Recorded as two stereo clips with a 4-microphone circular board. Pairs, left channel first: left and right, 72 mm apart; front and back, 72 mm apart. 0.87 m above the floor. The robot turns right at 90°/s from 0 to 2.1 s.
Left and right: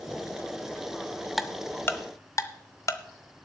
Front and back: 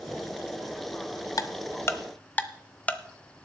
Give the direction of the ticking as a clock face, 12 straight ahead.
12 o'clock.